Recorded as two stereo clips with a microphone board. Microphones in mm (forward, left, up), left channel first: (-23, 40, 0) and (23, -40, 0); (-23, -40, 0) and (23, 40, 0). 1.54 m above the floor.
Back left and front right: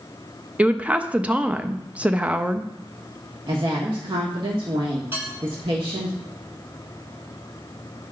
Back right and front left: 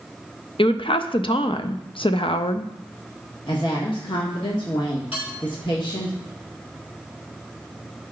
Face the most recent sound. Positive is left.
turn(degrees=-125)